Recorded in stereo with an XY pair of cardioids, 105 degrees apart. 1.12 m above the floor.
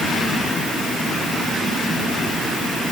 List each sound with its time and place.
Only background noise.